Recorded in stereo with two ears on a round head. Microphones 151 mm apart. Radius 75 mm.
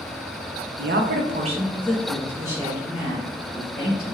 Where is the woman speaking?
65° right (ahead or behind), 0.6 m; by 4.2 s 5° right (ahead or behind), 2.5 m.